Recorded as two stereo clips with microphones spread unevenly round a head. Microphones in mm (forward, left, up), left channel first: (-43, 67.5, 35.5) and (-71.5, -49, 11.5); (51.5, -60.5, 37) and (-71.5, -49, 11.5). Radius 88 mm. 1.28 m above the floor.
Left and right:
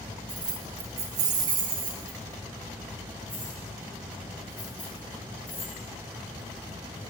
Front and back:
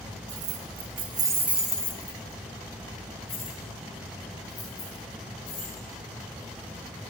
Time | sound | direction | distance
0.3 | keys jangling | 165° right | 0.9 m